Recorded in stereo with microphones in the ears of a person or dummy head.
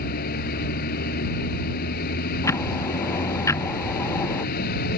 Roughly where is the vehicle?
Left.